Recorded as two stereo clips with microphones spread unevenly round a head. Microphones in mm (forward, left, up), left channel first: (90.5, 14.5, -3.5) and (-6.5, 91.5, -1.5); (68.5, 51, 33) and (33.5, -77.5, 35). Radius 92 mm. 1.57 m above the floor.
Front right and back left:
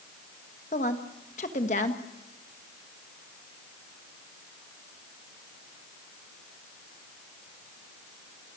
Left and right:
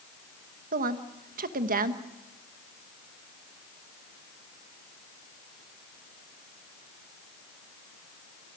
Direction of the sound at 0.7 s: 90° right.